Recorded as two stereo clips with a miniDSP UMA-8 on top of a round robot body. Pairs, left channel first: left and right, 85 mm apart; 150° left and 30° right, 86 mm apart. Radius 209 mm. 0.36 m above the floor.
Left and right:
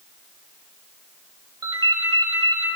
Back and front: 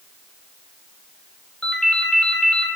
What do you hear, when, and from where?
1.6 s a ringtone: 130° right, 2 m